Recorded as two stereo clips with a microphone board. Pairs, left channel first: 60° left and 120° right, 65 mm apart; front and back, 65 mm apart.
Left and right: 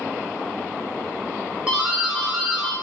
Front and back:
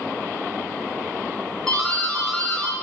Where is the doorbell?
70° right, 1.5 m.